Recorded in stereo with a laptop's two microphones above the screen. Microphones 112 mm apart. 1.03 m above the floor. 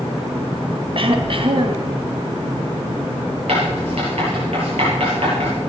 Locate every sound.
0.9 s throat clearing: 50° right (ahead or behind), 1.5 m
3.5 s writing: 65° right (ahead or behind), 8 m